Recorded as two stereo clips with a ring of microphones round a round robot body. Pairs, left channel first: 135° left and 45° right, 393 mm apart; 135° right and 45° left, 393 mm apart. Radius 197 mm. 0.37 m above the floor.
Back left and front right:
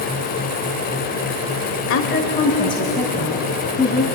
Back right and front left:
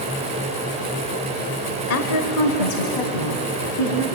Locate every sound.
1.9 s a woman speaking: straight behind, 1.1 m; by 4.0 s 135° right, 3.5 m